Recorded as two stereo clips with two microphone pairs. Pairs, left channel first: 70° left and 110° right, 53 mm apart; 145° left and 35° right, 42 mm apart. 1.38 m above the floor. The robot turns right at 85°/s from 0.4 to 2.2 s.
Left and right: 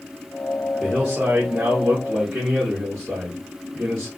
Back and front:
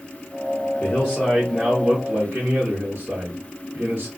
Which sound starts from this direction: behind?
A man speaking, at 0.8 s.